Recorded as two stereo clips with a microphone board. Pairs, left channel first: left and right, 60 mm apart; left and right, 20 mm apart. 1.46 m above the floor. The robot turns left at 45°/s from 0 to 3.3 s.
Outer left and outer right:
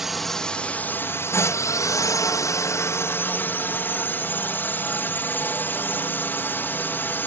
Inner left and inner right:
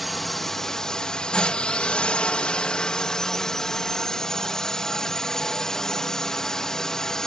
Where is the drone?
175° right; by 7.3 s 35° left.